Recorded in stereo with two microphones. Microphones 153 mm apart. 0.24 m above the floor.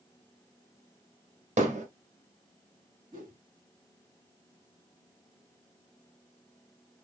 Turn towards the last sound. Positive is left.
turn(degrees=-60)  # may be behind; listen again after turning